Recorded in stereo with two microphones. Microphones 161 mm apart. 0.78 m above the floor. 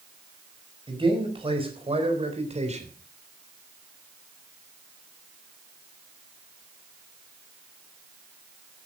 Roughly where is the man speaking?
Right.